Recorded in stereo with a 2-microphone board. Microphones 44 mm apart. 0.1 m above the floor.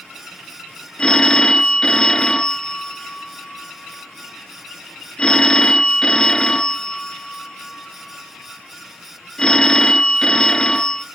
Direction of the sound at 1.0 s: 20° left (ahead or behind).